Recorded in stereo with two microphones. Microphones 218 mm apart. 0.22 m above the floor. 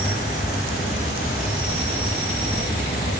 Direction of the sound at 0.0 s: 45° left (ahead or behind).